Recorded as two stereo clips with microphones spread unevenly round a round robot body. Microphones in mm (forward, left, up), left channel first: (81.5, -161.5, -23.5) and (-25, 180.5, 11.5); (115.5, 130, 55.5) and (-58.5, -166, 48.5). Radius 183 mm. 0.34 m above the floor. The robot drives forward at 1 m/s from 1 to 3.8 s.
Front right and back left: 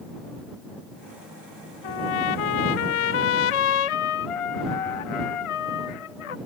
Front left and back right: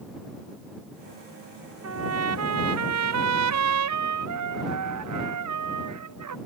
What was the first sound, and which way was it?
A trumpet, 70° right.